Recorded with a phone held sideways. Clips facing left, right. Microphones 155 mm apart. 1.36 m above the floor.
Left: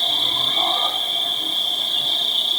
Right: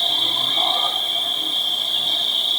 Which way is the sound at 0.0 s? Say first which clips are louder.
Even; 40° left (ahead or behind).